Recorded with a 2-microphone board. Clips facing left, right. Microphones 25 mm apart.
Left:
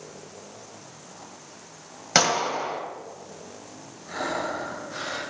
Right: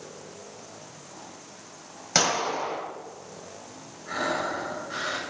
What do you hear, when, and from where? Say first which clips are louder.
2.1 s a gunshot: left 2 dB; 20° left (ahead or behind), 1.9 m
4.1 s breathing: right 1 dB; 35° right (ahead or behind), 4 m